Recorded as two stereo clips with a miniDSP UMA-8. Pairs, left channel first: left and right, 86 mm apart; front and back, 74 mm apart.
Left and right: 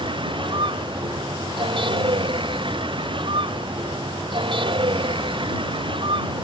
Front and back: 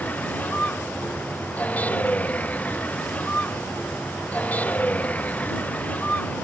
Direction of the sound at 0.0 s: 70° right.